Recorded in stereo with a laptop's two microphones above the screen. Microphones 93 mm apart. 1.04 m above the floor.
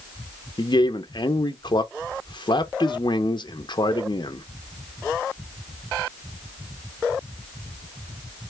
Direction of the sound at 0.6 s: 55° left (ahead or behind).